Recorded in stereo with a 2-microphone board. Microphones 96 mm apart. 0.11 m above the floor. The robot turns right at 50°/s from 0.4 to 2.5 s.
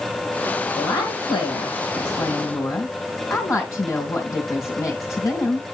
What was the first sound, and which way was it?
A woman speaking, 60° left.